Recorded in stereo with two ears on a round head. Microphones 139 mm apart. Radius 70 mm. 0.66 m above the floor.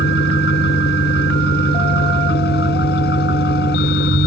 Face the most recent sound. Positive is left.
turn(degrees=80)